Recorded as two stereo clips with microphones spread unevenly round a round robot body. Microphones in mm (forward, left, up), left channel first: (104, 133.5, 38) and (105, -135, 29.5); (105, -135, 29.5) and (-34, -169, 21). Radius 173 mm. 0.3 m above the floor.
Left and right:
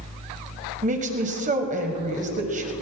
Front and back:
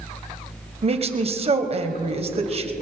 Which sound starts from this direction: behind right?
A woman speaking, at 0.8 s.